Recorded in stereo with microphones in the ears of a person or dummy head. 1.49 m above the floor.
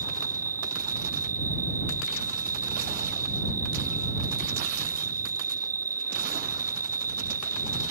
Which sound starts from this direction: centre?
An insect, at 0.0 s.